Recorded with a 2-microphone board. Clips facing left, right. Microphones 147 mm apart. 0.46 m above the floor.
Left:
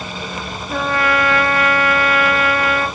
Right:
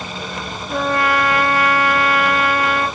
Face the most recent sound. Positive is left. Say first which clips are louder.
# even
turn(degrees=60)  # may be behind; listen again after turning